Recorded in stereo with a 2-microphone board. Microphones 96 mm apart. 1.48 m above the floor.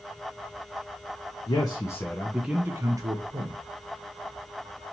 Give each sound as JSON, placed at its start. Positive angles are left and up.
{"t": 1.5, "sound": "a man speaking", "side_deg": 50, "distance_m": 0.6}